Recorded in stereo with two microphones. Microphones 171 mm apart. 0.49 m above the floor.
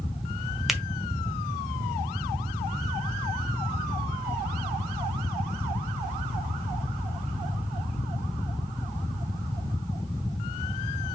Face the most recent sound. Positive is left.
turn(degrees=0)  # may be behind; listen again after turning